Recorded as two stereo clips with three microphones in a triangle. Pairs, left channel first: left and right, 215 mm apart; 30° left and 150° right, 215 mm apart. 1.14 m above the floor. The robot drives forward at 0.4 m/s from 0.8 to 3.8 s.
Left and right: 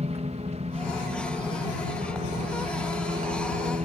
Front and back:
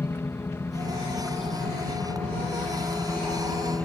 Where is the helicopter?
45° right; by 3.9 s 50° right.